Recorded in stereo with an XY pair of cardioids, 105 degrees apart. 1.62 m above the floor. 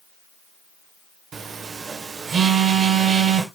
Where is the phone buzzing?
50° right, 1.5 m.